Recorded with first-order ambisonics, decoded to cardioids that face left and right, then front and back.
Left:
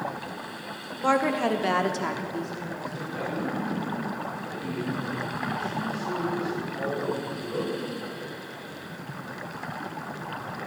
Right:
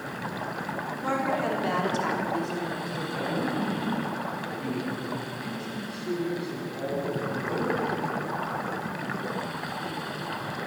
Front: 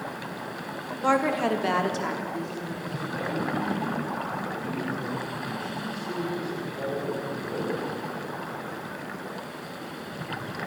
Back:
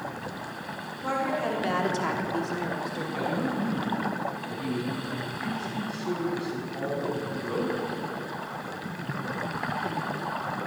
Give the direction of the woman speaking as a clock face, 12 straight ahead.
11 o'clock.